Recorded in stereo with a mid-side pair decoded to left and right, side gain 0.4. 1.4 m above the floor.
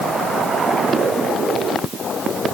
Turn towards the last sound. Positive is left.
No sound to turn to.